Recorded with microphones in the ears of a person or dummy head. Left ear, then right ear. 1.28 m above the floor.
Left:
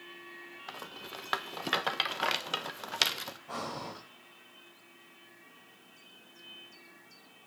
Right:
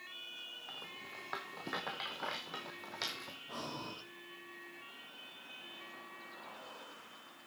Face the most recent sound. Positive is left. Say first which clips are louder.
# left 4 dB
turn(degrees=25)  # may be behind; listen again after turning